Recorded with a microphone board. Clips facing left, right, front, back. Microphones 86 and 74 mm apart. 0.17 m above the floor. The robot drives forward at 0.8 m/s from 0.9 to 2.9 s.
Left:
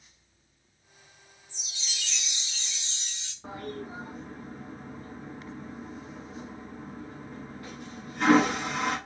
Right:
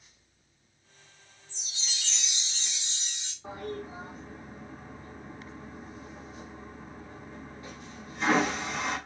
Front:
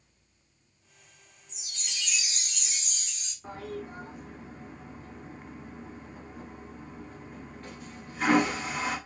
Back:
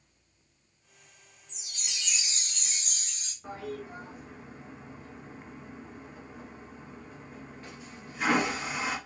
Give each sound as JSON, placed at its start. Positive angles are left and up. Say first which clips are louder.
{"t": 1.5, "sound": "a chime", "louder": "even, front 1 dB", "azimuth_deg": -75, "distance_m": 0.9}
{"t": 3.4, "sound": "a toilet flushing", "louder": "even, even", "azimuth_deg": 90, "distance_m": 1.4}